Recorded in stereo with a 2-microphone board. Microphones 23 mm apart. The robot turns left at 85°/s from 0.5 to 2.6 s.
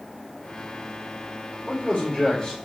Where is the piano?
I don't hear a piano.